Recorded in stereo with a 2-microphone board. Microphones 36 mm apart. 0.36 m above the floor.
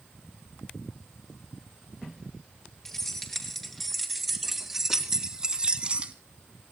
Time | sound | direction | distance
2.9 | keys jangling | 15° left (ahead or behind) | 5 m